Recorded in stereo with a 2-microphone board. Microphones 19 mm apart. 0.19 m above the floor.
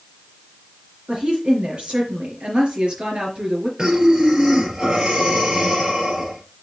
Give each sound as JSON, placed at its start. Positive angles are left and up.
{"t": 1.1, "sound": "a woman speaking", "side_deg": -65, "distance_m": 4.0}
{"t": 3.8, "sound": "breathing", "side_deg": -40, "distance_m": 3.0}